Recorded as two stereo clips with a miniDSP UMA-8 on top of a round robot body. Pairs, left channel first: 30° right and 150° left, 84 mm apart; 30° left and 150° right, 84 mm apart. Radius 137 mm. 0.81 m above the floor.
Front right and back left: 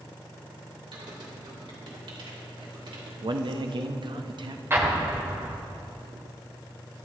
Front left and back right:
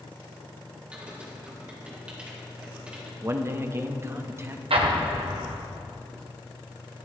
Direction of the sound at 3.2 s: 155° left.